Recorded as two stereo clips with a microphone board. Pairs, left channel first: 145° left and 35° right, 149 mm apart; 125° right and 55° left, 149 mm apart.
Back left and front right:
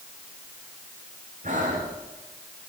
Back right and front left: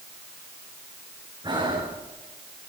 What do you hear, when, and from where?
1.4 s breathing: 5° right, 5.5 m